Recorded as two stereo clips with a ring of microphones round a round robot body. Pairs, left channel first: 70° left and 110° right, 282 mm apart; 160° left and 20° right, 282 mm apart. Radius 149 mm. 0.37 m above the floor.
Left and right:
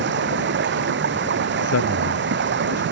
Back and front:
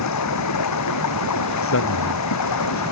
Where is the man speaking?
110° left.